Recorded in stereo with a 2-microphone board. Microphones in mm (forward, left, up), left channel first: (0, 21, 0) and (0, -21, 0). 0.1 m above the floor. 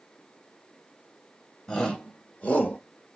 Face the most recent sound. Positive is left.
turn(degrees=35)  # may be behind; listen again after turning